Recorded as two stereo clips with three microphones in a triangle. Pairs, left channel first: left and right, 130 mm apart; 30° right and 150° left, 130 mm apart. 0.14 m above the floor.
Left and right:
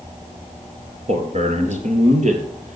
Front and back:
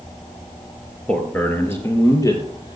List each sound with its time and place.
1.1 s a man speaking: 110° right, 2.5 m; by 2.8 s 85° right, 3.5 m